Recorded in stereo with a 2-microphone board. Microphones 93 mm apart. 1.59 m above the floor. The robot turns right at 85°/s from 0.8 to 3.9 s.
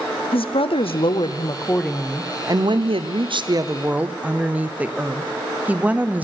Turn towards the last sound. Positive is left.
turn(degrees=-15)